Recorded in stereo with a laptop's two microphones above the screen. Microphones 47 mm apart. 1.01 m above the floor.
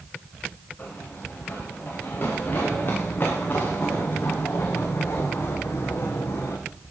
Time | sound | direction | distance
0.8 | running footsteps | 40° left (ahead or behind) | 9.5 m